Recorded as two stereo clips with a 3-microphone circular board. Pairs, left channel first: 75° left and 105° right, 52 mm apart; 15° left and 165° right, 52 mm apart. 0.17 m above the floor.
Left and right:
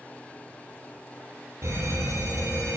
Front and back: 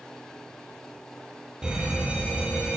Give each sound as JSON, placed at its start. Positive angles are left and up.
{"t": 1.6, "sound": "a fire alarm", "azimuth_deg": -90, "distance_m": 7.5}